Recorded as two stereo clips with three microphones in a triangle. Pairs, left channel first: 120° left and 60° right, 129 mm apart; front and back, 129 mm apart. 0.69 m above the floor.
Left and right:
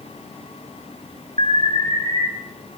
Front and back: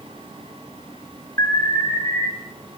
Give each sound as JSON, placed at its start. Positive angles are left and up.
{"t": 1.4, "sound": "an alarm", "azimuth_deg": -65, "distance_m": 3.5}